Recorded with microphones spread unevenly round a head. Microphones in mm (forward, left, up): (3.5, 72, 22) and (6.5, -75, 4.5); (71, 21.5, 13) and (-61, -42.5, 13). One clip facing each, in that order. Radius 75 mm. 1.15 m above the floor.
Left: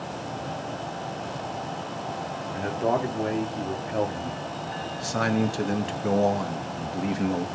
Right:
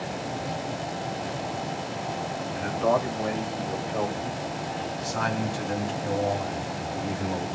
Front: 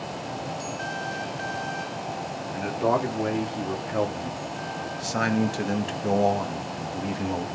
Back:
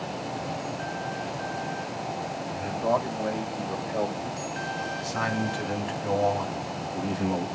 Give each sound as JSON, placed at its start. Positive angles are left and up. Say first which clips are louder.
{"t": 2.5, "sound": "a man speaking", "louder": "right 1 dB, front 2 dB", "azimuth_deg": 40, "distance_m": 3.0}